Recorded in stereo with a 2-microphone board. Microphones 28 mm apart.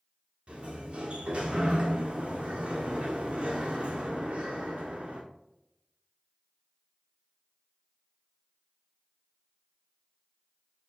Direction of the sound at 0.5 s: 45° right (ahead or behind).